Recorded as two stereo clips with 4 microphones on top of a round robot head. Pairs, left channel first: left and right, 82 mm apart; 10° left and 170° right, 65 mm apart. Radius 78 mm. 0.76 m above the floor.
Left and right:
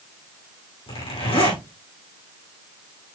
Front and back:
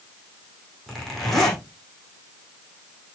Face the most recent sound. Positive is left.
turn(degrees=95)